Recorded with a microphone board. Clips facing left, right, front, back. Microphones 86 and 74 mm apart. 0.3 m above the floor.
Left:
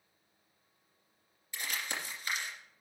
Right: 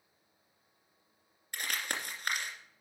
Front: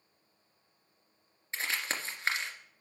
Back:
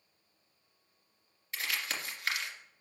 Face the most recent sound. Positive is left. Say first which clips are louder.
# right 2 dB, front 2 dB
turn(degrees=-60)